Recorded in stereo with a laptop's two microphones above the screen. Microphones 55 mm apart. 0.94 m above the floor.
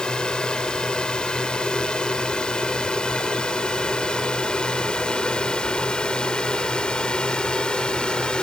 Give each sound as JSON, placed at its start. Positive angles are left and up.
{"t": 0.0, "sound": "a drone", "side_deg": 15}